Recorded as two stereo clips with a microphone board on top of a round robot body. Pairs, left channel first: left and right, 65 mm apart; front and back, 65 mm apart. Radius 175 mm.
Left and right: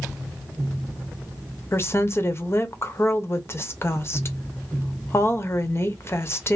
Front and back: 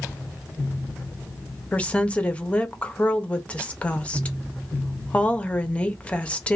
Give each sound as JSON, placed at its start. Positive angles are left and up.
{"t": 1.7, "sound": "a woman speaking", "azimuth_deg": 60, "distance_m": 0.8}